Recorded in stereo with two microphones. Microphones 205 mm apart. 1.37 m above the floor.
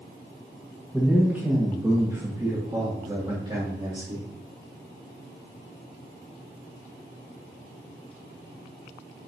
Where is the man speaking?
5° right (ahead or behind), 1.1 m; by 4.3 s 30° right (ahead or behind), 2.5 m.